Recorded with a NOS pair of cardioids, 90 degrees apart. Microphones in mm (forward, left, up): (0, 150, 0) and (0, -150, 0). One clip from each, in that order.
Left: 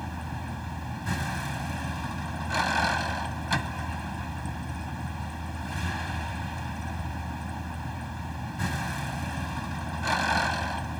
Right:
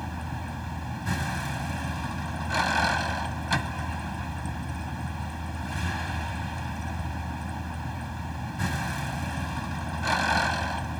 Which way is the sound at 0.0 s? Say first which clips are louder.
Right 1 dB; 5° right.